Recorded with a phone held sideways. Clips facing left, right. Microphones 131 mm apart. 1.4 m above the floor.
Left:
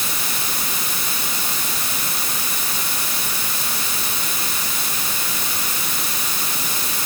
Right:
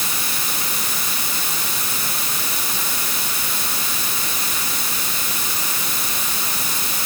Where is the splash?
I don't hear a splash.